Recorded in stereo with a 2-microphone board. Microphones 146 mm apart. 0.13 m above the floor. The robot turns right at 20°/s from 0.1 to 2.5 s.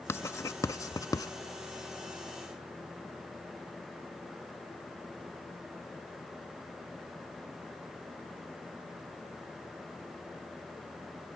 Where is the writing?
20° left (ahead or behind); by 1.3 s 25° left (ahead or behind).